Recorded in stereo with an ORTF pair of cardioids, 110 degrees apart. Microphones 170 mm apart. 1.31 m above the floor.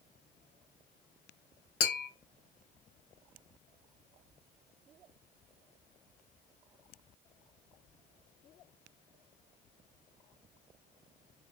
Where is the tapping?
60° left, 1.5 m.